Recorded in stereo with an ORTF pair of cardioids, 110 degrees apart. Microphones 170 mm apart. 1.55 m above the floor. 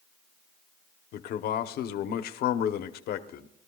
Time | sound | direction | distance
1.1 | a man speaking | 70° left | 1.0 m